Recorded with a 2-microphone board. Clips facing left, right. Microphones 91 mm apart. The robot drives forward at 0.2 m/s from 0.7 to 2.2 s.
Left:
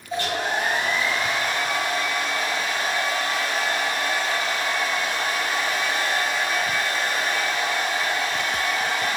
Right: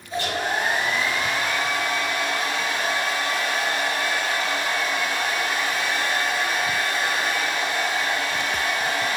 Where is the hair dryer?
55° left (ahead or behind), 1.3 m; by 9.2 s 50° left (ahead or behind), 1.4 m.